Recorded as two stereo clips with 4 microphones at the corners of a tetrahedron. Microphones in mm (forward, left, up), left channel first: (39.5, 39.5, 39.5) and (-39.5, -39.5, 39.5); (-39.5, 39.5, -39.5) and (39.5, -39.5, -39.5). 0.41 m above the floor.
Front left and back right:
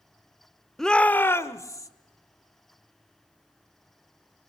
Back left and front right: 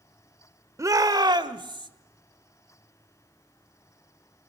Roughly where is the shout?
Ahead right.